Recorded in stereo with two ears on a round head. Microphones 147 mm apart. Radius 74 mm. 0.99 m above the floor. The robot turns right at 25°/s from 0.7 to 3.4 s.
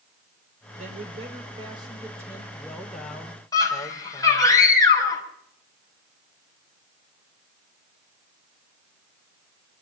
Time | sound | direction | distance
0.8 | a man speaking | 50° right | 4.5 m
3.5 | a scream | 20° left (ahead or behind) | 6.5 m